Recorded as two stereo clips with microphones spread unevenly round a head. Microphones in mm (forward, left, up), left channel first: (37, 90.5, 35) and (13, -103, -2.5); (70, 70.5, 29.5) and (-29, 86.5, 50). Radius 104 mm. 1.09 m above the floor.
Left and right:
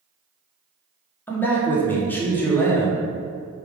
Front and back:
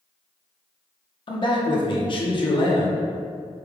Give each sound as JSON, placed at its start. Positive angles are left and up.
{"t": 1.3, "sound": "a man speaking", "azimuth_deg": -5, "distance_m": 1.1}